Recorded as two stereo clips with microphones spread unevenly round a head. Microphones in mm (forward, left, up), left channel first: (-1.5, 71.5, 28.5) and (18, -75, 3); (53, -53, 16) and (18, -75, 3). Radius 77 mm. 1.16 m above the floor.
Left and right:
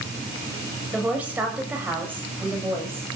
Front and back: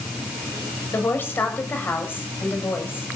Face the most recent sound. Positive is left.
turn(degrees=-5)